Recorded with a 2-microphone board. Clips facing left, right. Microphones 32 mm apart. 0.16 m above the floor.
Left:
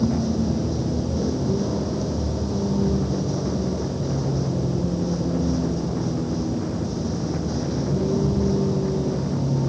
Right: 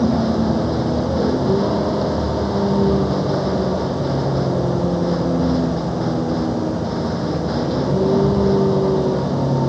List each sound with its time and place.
0.0 s a vehicle: 45° right (ahead or behind)